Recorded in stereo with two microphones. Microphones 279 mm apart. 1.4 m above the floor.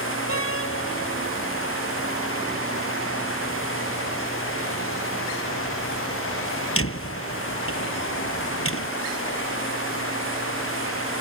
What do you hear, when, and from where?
0.3 s a door slam: 50° left (ahead or behind)